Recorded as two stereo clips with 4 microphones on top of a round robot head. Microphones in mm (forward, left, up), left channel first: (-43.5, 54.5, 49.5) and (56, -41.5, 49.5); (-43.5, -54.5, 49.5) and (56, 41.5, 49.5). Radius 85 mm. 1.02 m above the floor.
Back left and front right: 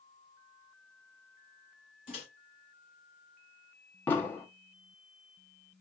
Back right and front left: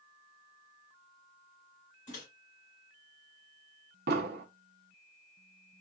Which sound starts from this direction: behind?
A microwave, at 2.1 s.